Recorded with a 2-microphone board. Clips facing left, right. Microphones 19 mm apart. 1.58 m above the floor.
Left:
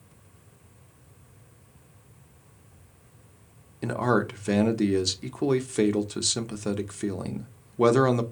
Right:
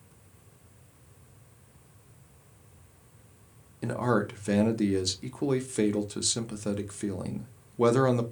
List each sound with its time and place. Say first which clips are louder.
3.8 s a man speaking: left 3 dB; 15° left (ahead or behind), 0.6 m